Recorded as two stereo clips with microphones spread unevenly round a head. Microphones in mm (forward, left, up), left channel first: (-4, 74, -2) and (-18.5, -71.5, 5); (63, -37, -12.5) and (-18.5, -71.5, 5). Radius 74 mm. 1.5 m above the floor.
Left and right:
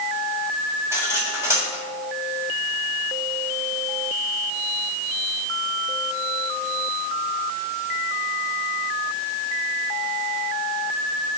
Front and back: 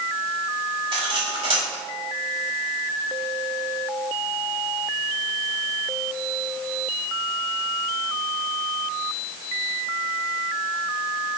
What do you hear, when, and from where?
0.9 s cutlery clinking: 170° right, 3.5 m